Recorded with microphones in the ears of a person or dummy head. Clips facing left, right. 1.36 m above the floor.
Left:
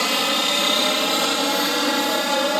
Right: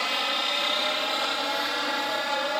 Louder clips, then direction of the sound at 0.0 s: Left 8 dB; 55° left (ahead or behind).